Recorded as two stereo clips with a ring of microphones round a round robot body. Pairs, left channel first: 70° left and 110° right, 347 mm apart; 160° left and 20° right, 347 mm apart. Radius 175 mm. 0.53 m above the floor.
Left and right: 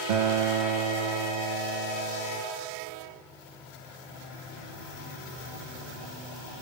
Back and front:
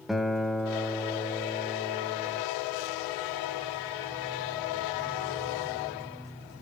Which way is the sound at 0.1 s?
110° right.